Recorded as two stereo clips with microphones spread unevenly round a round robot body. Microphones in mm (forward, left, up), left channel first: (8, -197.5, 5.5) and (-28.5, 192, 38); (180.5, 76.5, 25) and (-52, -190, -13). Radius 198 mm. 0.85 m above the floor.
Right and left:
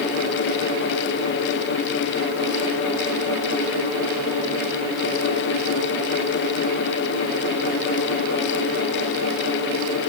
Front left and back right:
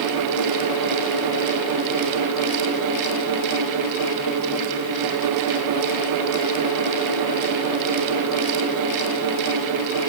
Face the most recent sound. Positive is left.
No sound to turn to.